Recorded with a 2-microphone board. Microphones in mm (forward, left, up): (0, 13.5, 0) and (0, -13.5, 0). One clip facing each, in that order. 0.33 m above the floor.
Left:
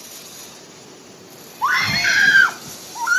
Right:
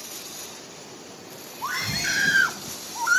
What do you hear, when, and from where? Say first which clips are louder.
1.6 s a scream: left 10 dB; 40° left (ahead or behind); by 3.2 s 10° left (ahead or behind)